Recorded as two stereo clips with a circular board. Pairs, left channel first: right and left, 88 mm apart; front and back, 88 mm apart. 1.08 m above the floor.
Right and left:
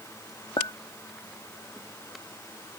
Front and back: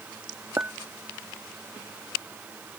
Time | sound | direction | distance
0.6 | a clink | 115° right | ?